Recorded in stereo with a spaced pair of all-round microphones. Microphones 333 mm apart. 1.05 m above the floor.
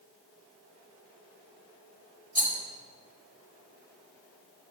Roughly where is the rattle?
Left.